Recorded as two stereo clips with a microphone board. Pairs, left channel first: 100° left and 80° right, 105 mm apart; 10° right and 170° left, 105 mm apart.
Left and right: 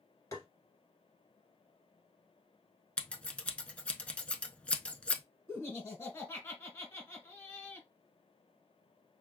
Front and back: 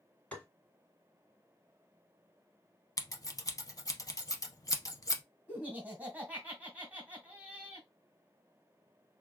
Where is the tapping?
55° left, 1.6 m.